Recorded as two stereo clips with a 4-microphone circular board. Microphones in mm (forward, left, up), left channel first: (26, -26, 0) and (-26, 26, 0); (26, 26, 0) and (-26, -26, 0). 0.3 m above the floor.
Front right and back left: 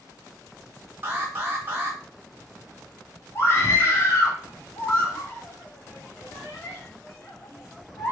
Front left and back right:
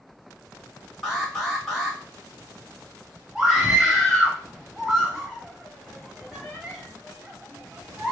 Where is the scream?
55° right, 1.1 m.